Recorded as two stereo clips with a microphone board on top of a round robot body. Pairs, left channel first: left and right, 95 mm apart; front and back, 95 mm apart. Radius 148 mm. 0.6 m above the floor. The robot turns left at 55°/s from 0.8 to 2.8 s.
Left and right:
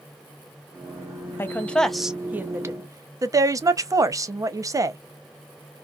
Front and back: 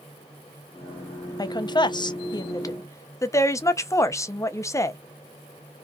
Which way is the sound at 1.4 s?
30° left.